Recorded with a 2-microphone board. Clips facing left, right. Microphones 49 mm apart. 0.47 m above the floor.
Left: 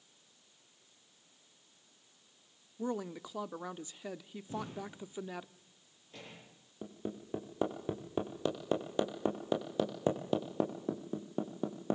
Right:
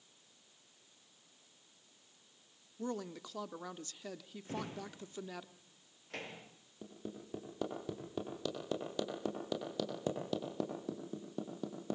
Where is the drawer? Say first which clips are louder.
Left 1 dB; 85° right, 7.5 m.